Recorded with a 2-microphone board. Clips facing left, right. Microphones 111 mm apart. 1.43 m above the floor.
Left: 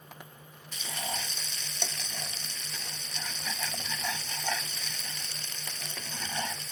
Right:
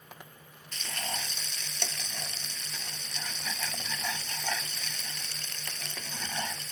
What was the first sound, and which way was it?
Frying, 10° left (ahead or behind).